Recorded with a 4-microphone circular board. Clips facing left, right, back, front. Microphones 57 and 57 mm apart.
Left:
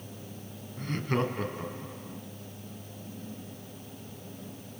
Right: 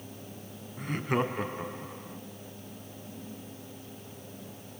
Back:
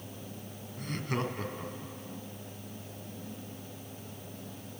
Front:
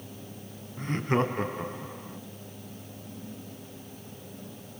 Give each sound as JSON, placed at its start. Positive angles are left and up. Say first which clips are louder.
{"t": 0.8, "sound": "laughter", "louder": "right 1 dB, front 7 dB", "azimuth_deg": -25, "distance_m": 1.9}